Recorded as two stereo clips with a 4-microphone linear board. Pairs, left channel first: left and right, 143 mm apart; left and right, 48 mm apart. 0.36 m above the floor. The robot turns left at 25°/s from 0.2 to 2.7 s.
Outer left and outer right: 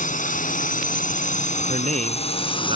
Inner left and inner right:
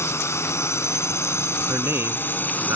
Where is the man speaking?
65° right (ahead or behind); by 2.8 s 45° right (ahead or behind).